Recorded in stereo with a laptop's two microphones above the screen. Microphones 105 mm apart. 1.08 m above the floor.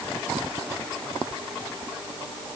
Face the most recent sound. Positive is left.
No sound to turn to.